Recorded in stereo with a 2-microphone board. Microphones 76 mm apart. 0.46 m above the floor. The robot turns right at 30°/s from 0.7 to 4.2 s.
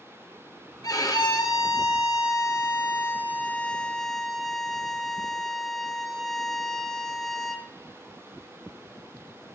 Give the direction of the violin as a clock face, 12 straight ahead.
9 o'clock.